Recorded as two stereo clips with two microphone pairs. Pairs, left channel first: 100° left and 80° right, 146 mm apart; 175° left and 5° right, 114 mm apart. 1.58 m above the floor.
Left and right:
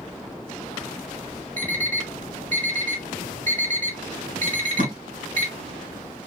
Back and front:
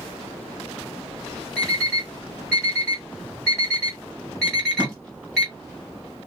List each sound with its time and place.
1.6 s an alarm clock: 100° right, 3 m
4.5 s tape being pulled: 110° right, 3 m